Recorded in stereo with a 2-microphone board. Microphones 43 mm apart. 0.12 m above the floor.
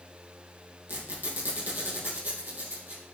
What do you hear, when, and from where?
0.9 s a squeak: 50° right (ahead or behind), 2.5 m